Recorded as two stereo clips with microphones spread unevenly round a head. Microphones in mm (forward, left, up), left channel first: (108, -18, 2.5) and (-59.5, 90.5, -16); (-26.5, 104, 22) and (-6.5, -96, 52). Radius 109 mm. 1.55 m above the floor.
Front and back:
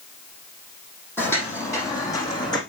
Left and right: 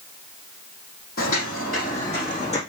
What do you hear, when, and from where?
1.2 s footsteps: 45° left, 3.5 m; by 2.6 s 35° left, 4 m